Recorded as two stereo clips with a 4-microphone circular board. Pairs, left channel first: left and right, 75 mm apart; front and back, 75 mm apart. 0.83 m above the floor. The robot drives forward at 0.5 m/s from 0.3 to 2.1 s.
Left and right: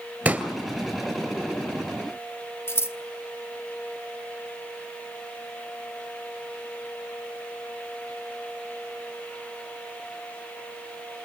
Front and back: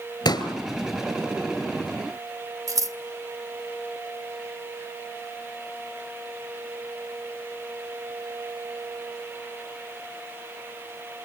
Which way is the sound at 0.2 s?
15° right.